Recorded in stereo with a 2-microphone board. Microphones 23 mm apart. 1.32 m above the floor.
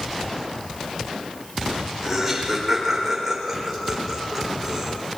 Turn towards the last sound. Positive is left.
turn(degrees=0)  # may be behind; listen again after turning